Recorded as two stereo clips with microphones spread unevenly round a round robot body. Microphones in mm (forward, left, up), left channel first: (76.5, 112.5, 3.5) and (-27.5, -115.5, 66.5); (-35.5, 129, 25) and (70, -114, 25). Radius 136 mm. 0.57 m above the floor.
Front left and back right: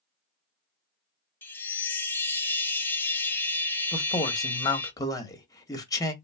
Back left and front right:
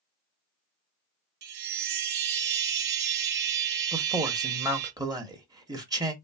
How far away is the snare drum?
No snare drum in this recording.